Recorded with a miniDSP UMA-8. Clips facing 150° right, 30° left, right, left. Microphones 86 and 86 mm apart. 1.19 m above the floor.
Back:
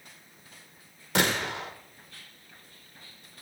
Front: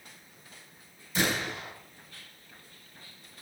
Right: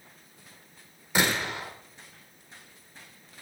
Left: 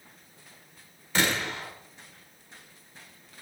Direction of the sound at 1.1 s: 170° right.